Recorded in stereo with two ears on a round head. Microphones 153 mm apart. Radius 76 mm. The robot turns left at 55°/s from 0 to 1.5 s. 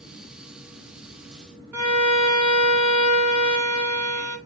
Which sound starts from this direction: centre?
A violin, at 1.7 s.